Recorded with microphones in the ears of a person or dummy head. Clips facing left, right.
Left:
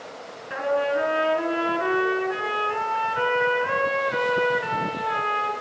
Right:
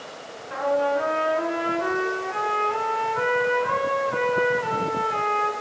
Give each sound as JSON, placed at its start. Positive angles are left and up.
{"t": 0.5, "sound": "a trumpet", "side_deg": 15, "distance_m": 3.5}